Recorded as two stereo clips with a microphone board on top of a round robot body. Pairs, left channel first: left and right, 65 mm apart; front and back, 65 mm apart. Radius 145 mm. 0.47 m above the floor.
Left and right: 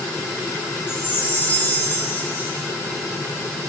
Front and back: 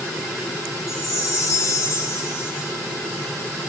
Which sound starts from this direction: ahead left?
A chime, at 0.9 s.